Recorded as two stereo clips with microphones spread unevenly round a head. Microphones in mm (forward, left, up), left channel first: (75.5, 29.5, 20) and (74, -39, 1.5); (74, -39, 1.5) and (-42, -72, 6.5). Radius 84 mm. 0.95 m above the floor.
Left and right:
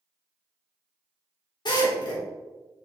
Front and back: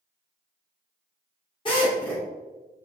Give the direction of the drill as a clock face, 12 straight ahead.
9 o'clock.